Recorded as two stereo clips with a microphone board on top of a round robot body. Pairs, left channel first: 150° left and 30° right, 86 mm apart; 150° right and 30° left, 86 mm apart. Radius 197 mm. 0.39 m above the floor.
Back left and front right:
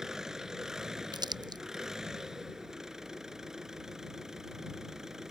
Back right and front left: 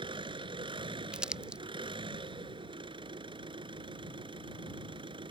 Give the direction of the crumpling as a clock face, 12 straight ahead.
2 o'clock.